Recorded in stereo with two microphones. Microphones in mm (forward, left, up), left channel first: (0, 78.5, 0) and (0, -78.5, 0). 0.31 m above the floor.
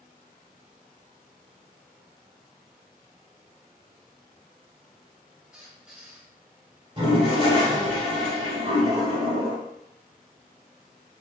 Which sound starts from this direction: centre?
A squeak, at 5.5 s.